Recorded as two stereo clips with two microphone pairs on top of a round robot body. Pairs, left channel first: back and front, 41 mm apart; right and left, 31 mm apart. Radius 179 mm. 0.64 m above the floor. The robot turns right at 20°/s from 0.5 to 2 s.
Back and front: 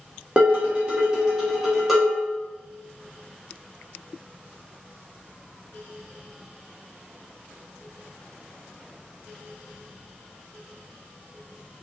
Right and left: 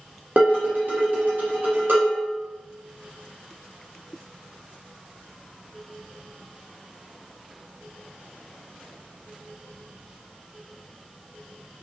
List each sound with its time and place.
0.4 s dishes clattering: 60° left, 1.3 m; by 2.2 s 90° left, 1.3 m